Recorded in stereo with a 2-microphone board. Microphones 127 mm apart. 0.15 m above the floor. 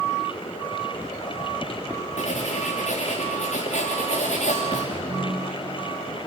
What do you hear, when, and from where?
2.2 s writing: 60° left (ahead or behind), 4.5 m
4.9 s a ringtone: 10° left (ahead or behind), 3.5 m